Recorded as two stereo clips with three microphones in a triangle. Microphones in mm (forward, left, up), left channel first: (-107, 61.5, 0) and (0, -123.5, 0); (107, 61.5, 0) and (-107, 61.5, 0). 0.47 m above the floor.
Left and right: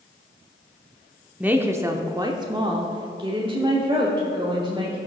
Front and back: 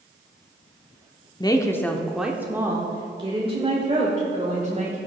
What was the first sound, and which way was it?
A woman speaking, 5° left.